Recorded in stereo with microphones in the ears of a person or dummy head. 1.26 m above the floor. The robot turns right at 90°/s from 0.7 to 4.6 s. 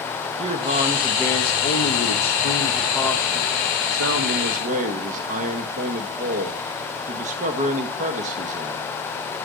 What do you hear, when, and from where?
0.4 s a man speaking: 40° right, 1.1 m; by 8.8 s 45° right, 1.1 m